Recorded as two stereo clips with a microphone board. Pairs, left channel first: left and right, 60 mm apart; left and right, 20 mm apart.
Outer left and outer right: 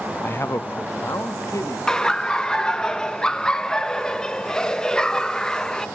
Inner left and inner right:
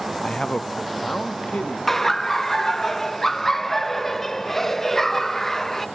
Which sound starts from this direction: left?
A man speaking, at 0.2 s.